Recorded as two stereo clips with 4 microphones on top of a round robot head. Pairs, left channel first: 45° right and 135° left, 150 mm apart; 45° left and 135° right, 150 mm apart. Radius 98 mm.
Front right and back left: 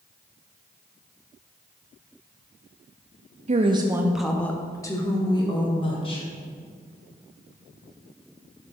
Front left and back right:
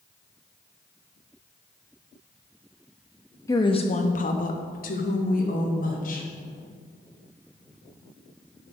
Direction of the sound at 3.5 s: 110° left.